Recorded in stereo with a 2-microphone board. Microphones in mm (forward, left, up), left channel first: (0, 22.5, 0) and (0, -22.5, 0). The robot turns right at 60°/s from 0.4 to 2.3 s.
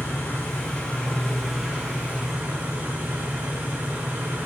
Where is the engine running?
120° left, 10 m; by 4.5 s 125° right, 10 m.